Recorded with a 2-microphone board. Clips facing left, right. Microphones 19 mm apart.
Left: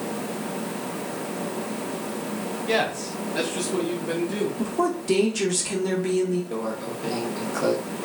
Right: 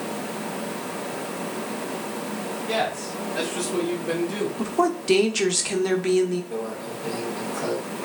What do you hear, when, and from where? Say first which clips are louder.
2.7 s a man speaking: left 2 dB; 45° left (ahead or behind), 1.7 m; by 4.5 s 10° right (ahead or behind), 1.7 m
4.6 s a woman speaking: right 5 dB; 30° right (ahead or behind), 0.8 m
6.5 s a microwave: left 1 dB; 40° left (ahead or behind), 1.1 m